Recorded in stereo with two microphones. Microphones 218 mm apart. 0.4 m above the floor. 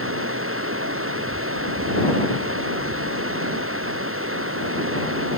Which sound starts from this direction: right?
Running water, at 0.0 s.